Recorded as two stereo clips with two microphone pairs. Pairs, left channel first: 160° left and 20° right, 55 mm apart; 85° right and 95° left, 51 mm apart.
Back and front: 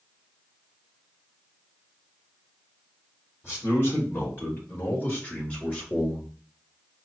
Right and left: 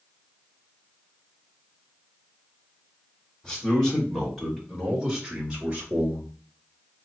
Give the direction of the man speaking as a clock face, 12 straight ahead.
5 o'clock.